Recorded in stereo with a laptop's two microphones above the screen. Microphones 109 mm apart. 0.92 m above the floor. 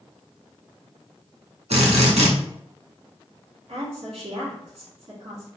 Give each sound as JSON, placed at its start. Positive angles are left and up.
{"t": 1.7, "sound": "a drill", "side_deg": -85, "distance_m": 1.2}
{"t": 3.7, "sound": "a woman speaking", "side_deg": -65, "distance_m": 1.9}